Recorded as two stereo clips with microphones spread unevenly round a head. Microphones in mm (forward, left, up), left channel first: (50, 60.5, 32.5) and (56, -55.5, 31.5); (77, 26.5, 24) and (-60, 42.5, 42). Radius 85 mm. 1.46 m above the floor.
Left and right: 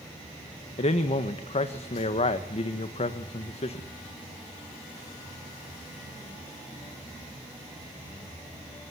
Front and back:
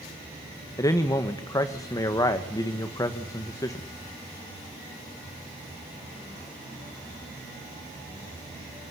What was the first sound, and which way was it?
A man speaking, 60° left.